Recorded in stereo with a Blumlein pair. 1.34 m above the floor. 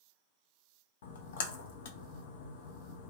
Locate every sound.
1.0 s a splash: 55° left, 0.5 m